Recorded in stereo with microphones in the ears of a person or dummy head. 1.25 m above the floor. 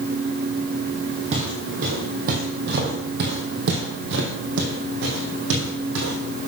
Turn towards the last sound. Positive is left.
turn(degrees=-70)  # may be behind; listen again after turning